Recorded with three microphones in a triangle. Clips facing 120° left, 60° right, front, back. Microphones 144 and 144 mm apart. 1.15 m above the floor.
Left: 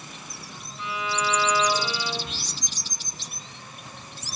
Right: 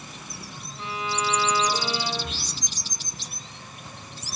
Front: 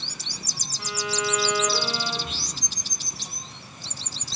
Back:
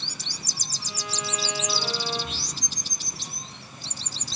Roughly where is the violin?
Ahead.